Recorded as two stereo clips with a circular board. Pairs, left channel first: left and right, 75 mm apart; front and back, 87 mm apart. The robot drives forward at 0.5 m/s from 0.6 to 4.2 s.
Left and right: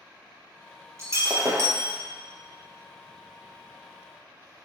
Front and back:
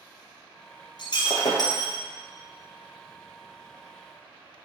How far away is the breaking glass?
About 2 m.